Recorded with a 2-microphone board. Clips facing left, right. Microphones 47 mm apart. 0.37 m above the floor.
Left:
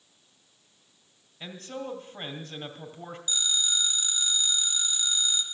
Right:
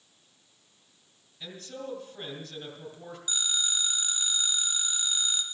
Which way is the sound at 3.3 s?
20° right (ahead or behind).